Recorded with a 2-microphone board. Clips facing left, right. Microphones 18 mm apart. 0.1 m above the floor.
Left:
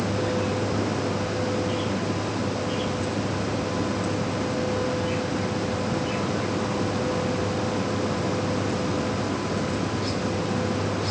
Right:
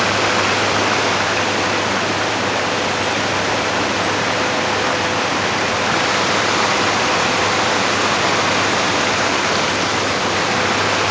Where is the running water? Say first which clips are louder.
Right 10 dB; 75° right (ahead or behind).